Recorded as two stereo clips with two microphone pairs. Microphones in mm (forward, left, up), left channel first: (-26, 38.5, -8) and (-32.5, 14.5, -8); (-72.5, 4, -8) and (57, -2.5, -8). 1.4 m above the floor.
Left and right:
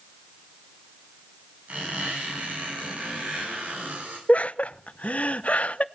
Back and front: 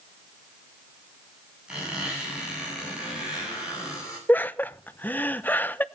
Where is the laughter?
100° left, 0.8 m.